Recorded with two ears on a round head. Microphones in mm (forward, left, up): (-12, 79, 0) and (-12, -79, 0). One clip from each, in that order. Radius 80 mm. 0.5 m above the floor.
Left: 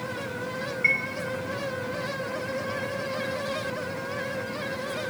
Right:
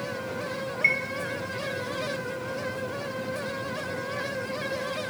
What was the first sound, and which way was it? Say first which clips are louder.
A chime: even; 25° right (ahead or behind).